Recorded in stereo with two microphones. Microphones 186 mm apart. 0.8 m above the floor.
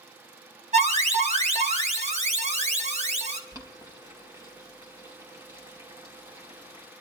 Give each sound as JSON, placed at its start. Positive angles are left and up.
{"t": 0.7, "sound": "an alarm", "side_deg": -40, "distance_m": 1.1}
{"t": 3.5, "sound": "boiling", "side_deg": -20, "distance_m": 3.0}